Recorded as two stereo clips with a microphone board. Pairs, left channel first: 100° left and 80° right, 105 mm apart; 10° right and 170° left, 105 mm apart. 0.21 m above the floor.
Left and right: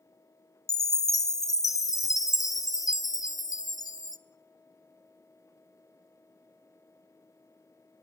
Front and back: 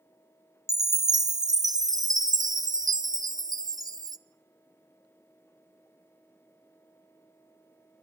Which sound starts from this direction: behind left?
A chime, at 0.7 s.